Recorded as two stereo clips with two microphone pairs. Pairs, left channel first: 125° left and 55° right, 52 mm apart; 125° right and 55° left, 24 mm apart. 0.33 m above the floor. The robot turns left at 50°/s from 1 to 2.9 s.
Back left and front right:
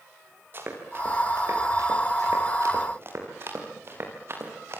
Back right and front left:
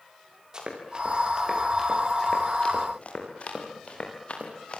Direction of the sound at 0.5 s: 5° right.